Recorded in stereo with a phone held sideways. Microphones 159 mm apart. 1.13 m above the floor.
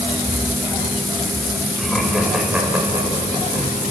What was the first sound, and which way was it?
Laughter, 5° left (ahead or behind).